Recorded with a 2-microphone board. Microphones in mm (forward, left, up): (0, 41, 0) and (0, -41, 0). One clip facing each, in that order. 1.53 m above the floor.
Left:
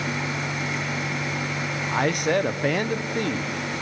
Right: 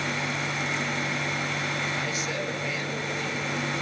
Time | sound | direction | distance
1.9 | a man speaking | 60° left (ahead or behind) | 0.9 m